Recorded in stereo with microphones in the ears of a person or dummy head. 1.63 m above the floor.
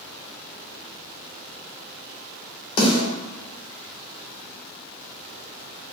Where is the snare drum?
35° left (ahead or behind), 1.4 m.